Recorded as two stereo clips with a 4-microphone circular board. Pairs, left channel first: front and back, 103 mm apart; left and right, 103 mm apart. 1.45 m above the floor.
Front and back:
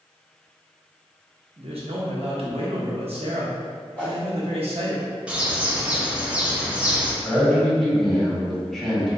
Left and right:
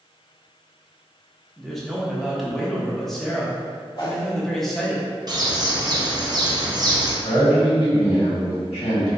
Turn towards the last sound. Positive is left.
turn(degrees=85)